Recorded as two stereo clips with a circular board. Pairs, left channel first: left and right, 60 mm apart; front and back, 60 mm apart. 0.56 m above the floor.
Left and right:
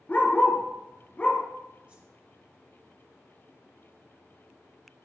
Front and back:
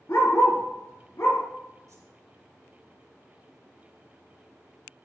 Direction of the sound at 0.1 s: 30° left.